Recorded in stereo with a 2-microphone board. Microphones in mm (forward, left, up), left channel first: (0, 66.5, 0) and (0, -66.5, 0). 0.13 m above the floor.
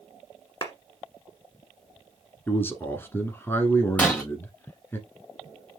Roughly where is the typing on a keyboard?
No typing on a keyboard in this recording.